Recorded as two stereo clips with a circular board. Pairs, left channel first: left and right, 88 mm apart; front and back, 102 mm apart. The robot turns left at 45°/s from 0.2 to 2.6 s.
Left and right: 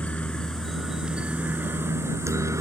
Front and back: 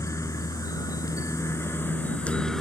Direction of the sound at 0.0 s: 25° left.